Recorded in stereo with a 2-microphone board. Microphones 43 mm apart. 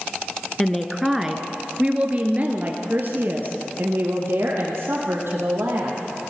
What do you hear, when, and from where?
0.6 s a woman speaking: 10° left (ahead or behind), 1.5 m; by 6.0 s 65° right (ahead or behind), 4.5 m